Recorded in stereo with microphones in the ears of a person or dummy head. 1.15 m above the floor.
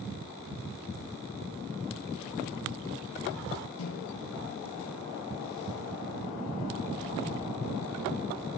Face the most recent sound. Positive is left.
turn(degrees=80)